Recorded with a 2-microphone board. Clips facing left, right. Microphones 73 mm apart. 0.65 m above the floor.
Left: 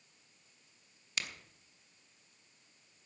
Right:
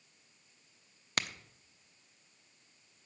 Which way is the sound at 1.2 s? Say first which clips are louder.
Right 5 dB; 50° right (ahead or behind).